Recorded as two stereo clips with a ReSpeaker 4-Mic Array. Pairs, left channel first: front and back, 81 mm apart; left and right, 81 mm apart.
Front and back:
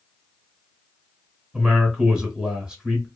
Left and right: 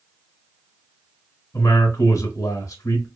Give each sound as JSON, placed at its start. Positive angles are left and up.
{"t": 1.5, "sound": "a man speaking", "azimuth_deg": 105, "distance_m": 1.1}